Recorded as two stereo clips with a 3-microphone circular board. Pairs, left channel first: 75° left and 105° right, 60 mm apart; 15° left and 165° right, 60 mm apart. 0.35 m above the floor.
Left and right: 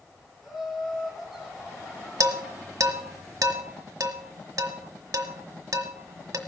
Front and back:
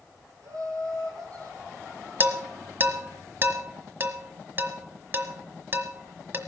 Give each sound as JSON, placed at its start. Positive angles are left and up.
{"t": 0.4, "sound": "laughter", "azimuth_deg": 170, "distance_m": 9.0}
{"t": 2.2, "sound": "dishes clattering", "azimuth_deg": -110, "distance_m": 1.3}